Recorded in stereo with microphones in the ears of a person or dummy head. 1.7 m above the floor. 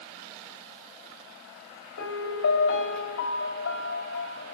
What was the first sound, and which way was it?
A piano, 80° left.